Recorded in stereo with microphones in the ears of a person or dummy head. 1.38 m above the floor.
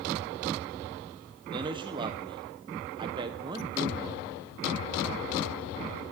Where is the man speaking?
25° right (ahead or behind), 0.9 m.